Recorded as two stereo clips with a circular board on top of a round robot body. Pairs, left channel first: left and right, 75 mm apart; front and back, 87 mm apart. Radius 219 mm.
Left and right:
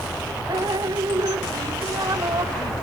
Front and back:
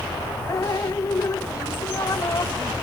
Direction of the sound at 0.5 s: 55° right.